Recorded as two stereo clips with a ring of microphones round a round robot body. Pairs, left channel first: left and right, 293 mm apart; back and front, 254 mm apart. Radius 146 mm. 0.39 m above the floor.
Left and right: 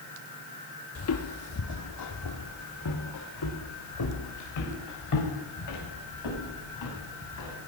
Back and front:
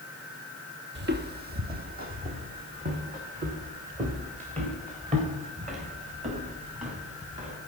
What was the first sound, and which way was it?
Footsteps, 45° left.